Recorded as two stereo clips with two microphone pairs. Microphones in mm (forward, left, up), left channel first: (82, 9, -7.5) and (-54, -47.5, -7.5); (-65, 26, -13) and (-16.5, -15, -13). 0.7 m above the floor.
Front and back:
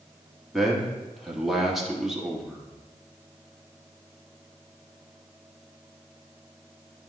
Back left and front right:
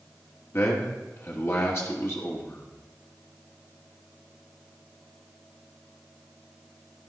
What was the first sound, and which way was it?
A man speaking, 115° left.